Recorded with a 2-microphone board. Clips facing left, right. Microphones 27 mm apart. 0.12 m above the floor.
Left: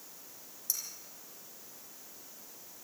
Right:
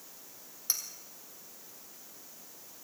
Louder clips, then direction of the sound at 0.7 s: Right 4 dB; 40° right (ahead or behind).